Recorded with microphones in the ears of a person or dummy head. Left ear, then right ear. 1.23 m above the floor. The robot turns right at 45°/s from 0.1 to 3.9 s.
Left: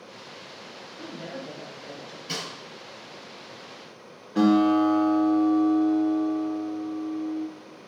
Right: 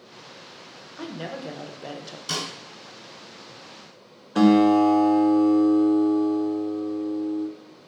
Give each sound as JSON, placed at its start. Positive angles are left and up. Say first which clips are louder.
{"t": 1.0, "sound": "a woman speaking", "louder": "right 4 dB", "azimuth_deg": -120, "distance_m": 0.9}
{"t": 2.3, "sound": "a snare drum", "louder": "right 4 dB", "side_deg": -50, "distance_m": 2.5}
{"t": 4.3, "sound": "a guitar", "louder": "right 3 dB", "side_deg": -25, "distance_m": 0.6}